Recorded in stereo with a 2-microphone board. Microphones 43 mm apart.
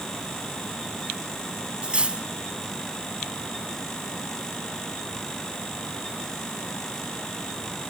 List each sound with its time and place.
1.8 s cutlery clinking: 25° right (ahead or behind), 1.4 m